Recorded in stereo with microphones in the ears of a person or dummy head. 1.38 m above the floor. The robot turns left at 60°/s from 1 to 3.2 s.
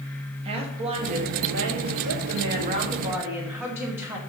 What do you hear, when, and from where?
0.5 s a woman speaking: 35° right, 1.3 m; by 4.2 s 165° right, 1.3 m